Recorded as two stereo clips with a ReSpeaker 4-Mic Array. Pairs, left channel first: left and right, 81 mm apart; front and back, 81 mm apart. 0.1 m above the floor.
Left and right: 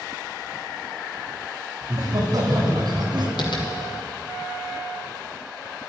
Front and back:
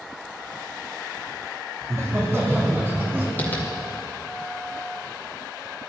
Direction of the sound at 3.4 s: 70° left.